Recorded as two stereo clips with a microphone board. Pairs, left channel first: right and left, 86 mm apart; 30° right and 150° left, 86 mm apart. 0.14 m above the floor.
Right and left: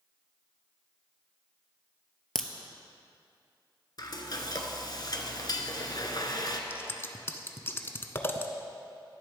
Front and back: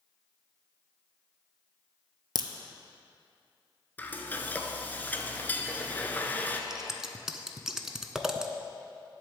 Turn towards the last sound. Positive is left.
turn(degrees=-130)